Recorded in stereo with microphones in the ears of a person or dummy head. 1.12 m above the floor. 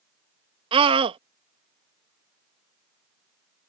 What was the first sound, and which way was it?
A scream, 25° right (ahead or behind).